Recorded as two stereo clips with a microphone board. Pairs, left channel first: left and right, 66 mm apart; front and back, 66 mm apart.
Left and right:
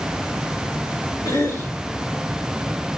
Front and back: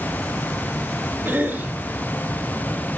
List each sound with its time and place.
1.2 s a cough: 115° left, 2.5 m